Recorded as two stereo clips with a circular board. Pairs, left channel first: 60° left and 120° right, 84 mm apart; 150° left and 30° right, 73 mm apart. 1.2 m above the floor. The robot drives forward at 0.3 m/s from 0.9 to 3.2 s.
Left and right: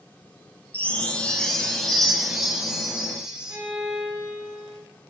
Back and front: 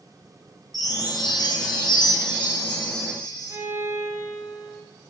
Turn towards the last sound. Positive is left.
turn(degrees=-70)